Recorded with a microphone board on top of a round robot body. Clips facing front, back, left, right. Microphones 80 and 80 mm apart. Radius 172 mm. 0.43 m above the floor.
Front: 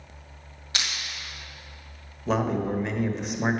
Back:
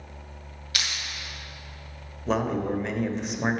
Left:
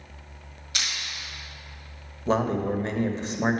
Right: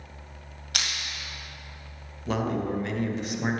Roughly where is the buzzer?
No buzzer in this recording.